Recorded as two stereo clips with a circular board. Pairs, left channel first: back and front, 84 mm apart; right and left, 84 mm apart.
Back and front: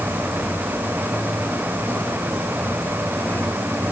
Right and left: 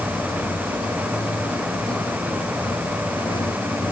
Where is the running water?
110° right.